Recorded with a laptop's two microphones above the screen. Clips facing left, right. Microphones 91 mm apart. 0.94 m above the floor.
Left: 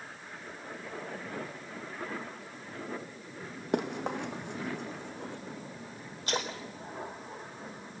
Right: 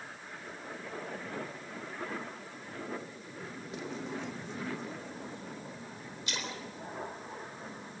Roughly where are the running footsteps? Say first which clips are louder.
Left 8 dB; left.